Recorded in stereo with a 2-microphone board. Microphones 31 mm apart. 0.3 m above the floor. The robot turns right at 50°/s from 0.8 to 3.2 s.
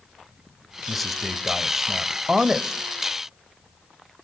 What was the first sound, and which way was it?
A man speaking, 5° left (ahead or behind).